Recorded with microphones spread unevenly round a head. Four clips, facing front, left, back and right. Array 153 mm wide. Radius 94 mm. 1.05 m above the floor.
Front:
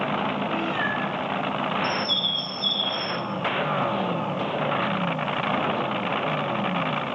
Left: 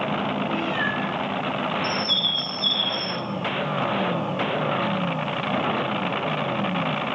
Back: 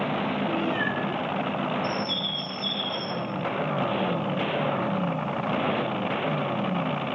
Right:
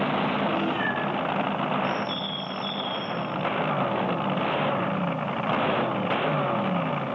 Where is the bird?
95° left, 2.5 m.